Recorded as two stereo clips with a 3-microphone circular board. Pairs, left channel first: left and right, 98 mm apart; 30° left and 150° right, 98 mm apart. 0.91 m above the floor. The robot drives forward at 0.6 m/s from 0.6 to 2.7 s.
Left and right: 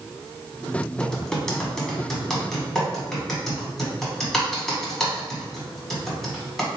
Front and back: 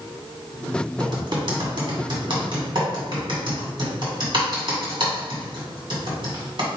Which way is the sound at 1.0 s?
170° left.